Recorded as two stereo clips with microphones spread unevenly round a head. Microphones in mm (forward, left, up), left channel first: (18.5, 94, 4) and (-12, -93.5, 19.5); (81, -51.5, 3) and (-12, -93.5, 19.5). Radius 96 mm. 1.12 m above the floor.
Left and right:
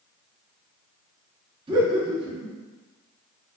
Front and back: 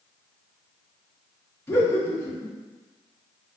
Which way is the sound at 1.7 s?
35° right.